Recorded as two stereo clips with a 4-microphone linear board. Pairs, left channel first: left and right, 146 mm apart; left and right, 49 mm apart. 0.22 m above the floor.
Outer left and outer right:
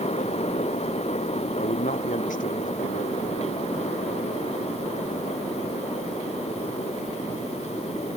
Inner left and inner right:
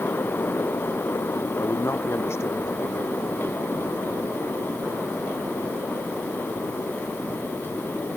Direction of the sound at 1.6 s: 60° left (ahead or behind).